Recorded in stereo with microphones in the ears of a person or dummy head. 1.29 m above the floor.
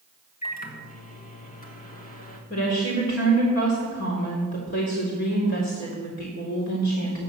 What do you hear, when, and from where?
0.4 s a microwave: 35° left (ahead or behind), 1.5 m
2.5 s a woman speaking: 55° left (ahead or behind), 4 m